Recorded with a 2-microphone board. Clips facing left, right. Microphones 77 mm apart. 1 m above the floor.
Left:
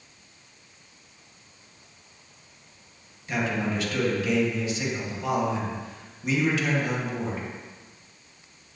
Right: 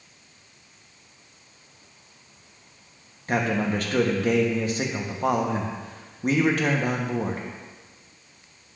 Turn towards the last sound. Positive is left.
turn(degrees=-45)  # may be behind; listen again after turning